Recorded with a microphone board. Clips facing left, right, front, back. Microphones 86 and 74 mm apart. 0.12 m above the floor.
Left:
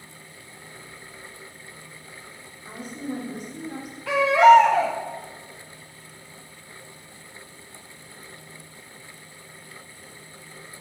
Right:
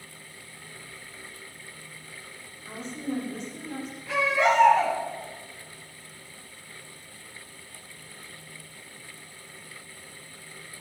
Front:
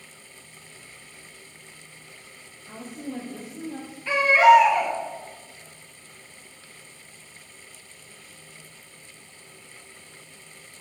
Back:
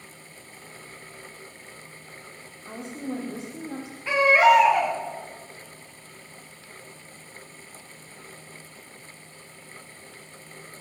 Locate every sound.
2.6 s a woman speaking: 170° left, 6 m
4.1 s a baby crying: 105° left, 8 m